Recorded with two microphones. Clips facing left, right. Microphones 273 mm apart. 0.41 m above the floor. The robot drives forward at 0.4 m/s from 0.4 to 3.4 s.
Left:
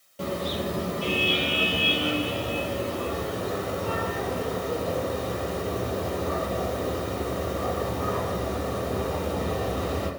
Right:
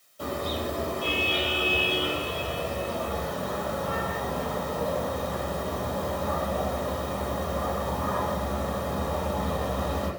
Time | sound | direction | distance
0.2 | a car horn | 85° left | 6.5 m